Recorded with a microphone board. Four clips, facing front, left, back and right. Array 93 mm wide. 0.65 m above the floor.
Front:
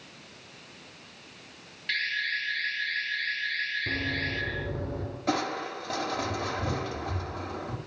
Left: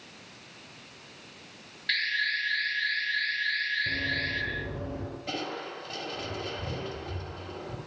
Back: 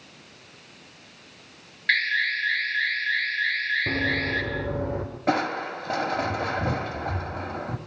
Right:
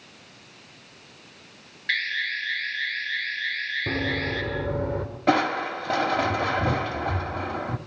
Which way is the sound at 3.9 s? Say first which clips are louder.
Right 4 dB, back 6 dB; 135° right.